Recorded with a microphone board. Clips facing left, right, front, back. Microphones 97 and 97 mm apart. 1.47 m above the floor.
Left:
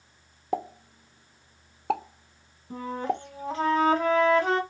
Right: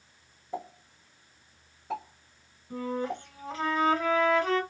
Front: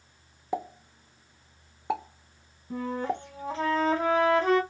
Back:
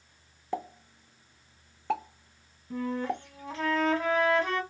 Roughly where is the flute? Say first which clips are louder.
Left 2 dB, front 1 dB; ahead left.